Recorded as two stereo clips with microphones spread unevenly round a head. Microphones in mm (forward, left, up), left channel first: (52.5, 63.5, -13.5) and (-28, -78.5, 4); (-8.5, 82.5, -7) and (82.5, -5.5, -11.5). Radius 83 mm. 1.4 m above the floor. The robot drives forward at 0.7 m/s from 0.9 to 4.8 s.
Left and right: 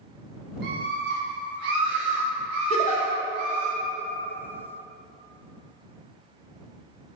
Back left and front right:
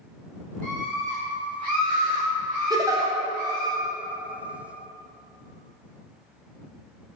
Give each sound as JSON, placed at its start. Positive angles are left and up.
{"t": 0.6, "sound": "a scream", "azimuth_deg": -95, "distance_m": 1.8}
{"t": 2.7, "sound": "a giggle", "azimuth_deg": 10, "distance_m": 0.8}